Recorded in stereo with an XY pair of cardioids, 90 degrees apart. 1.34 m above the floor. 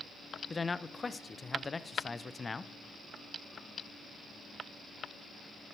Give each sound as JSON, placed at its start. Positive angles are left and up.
{"t": 0.5, "sound": "a man speaking", "azimuth_deg": 30, "distance_m": 0.6}